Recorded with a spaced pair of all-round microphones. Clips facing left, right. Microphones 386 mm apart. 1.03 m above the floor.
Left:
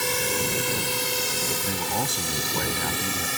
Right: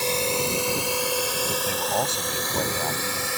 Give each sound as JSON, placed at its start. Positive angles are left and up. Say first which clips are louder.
{"t": 0.0, "sound": "a drone", "louder": "right 2 dB", "side_deg": 25}
{"t": 1.6, "sound": "a man speaking", "louder": "right 2 dB", "side_deg": 25}